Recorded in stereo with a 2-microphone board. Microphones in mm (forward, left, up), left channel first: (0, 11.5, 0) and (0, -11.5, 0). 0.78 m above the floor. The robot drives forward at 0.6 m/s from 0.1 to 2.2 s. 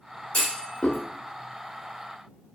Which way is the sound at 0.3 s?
55° left (ahead or behind).